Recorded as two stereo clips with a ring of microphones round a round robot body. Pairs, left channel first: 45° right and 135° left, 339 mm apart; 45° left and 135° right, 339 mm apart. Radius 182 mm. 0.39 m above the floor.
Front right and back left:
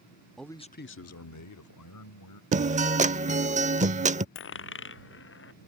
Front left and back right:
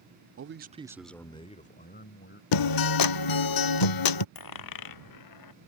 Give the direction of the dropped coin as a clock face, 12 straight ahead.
12 o'clock.